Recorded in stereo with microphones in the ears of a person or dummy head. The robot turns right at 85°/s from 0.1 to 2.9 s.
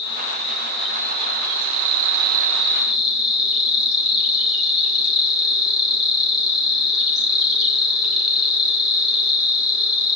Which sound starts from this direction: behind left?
An insect, at 0.0 s.